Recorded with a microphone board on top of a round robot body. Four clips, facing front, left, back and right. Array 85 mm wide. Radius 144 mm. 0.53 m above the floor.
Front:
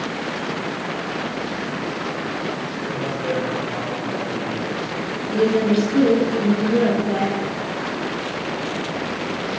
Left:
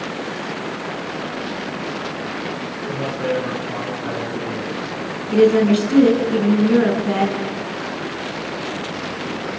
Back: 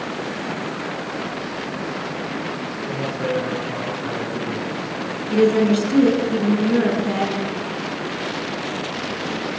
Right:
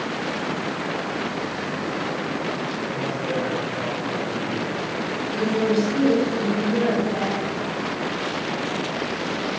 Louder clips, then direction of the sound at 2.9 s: Left 8 dB, back 1 dB; 125° left.